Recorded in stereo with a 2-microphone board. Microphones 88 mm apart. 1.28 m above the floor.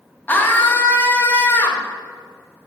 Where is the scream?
25° left (ahead or behind), 1.5 m.